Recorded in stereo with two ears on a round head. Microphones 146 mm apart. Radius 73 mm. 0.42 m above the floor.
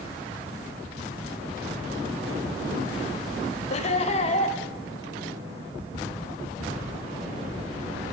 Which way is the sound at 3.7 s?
40° left (ahead or behind).